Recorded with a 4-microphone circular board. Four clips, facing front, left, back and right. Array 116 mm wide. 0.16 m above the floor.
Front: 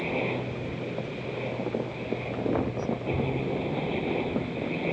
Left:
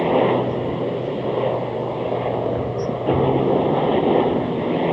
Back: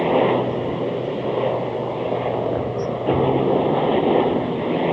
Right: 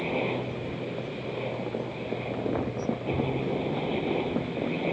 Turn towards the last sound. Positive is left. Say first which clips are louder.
# left 12 dB, back 13 dB
turn(degrees=130)